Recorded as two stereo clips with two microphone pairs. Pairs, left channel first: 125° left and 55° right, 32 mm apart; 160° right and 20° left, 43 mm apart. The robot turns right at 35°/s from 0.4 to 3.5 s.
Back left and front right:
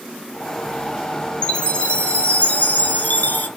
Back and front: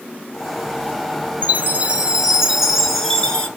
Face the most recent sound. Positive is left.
turn(degrees=145)